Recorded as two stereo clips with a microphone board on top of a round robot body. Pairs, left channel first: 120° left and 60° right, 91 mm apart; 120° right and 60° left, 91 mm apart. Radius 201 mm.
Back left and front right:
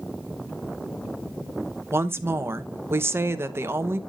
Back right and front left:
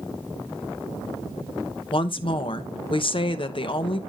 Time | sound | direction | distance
1.9 | a woman speaking | 125° right | 1.2 m